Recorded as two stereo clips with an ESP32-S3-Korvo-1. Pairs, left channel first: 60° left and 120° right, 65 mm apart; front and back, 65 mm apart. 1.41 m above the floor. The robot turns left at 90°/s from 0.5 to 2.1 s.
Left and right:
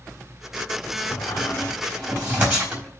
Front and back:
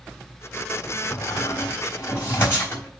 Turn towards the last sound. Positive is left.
turn(degrees=-50)